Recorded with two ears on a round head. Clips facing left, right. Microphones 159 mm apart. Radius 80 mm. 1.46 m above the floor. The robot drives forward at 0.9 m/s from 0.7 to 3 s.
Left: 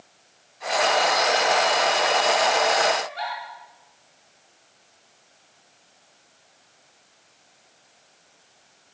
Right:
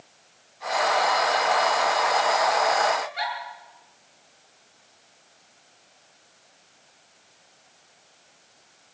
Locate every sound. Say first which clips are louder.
3.0 s a giggle: even; 20° right (ahead or behind), 9.5 m